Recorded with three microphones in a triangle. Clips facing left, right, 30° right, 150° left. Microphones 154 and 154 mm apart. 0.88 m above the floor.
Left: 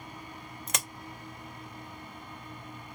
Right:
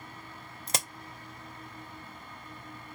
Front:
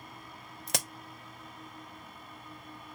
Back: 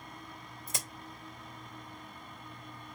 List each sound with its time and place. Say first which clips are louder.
0.7 s a crack: right 3 dB, front 7 dB; 30° right, 0.7 m